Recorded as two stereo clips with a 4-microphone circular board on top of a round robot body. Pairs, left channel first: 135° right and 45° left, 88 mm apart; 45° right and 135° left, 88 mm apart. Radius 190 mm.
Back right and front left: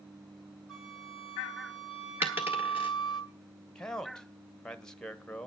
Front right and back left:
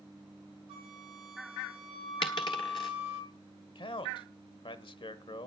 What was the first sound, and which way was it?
A flute, 140° left.